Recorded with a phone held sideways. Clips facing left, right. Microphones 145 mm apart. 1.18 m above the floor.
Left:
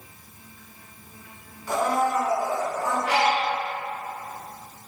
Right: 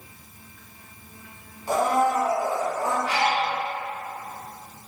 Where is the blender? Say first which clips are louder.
Right 2 dB; 35° right (ahead or behind), 2 m.